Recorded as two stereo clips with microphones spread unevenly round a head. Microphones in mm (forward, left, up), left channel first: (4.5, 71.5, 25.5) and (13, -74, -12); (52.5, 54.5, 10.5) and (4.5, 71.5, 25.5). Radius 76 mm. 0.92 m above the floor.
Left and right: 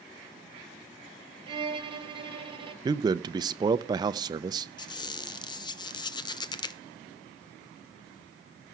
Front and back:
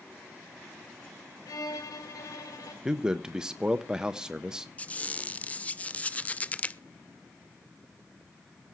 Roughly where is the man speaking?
Right.